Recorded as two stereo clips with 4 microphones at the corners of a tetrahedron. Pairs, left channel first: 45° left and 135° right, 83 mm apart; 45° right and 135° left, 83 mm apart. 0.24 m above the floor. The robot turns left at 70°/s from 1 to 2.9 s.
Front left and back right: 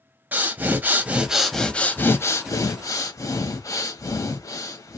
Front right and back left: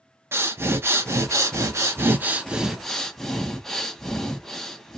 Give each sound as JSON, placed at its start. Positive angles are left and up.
{"t": 0.3, "sound": "breathing", "azimuth_deg": 170, "distance_m": 0.6}